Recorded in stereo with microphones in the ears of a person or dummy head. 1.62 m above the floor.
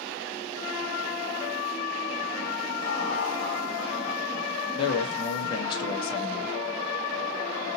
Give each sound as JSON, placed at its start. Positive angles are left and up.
{"t": 2.8, "sound": "laughter", "side_deg": 50, "distance_m": 1.0}
{"t": 4.8, "sound": "a man speaking", "side_deg": 25, "distance_m": 1.4}